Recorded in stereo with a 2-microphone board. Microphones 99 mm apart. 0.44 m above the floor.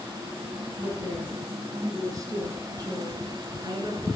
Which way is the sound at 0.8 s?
25° right (ahead or behind).